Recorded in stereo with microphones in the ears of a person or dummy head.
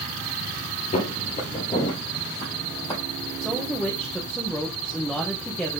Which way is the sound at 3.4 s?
5° left (ahead or behind).